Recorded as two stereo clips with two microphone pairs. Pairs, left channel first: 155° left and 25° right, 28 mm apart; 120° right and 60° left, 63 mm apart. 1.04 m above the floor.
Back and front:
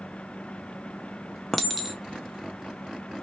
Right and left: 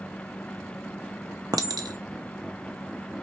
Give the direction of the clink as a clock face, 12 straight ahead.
10 o'clock.